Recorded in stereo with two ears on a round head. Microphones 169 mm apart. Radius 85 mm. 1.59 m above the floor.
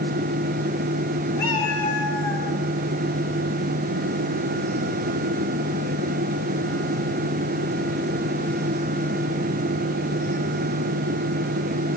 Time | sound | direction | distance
1.4 | a cat meowing | 15° left (ahead or behind) | 6.5 m